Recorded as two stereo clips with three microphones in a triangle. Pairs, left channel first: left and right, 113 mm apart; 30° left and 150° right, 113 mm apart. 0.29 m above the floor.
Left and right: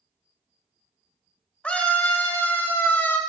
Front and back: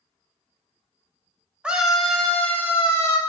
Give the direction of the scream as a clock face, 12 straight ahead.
7 o'clock.